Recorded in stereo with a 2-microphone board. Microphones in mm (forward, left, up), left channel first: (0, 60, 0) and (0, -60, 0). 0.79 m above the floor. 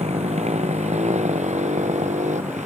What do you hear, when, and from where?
0.0 s a motorcycle: 65° right (ahead or behind); by 2.7 s 80° right